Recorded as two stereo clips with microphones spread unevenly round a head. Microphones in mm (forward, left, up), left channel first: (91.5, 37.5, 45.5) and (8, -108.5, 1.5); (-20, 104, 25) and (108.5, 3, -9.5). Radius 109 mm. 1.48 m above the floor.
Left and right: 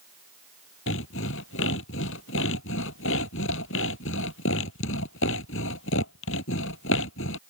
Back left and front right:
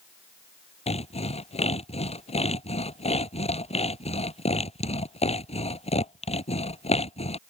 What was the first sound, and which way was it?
Sawing, 95° left.